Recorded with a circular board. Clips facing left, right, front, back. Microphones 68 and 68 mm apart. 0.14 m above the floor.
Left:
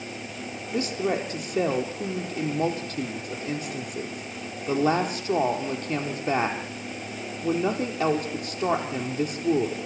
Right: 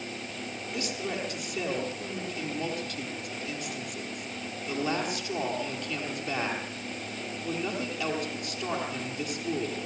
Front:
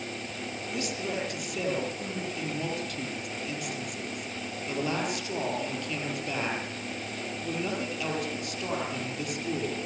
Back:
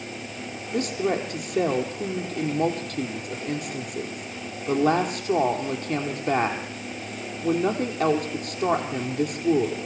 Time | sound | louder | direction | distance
0.7 | a woman speaking | left 8 dB, back 9 dB | 135° left | 3.5 m